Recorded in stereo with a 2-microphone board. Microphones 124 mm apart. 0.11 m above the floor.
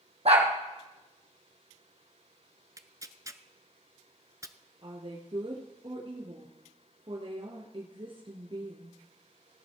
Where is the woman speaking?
45° right (ahead or behind), 1.6 m.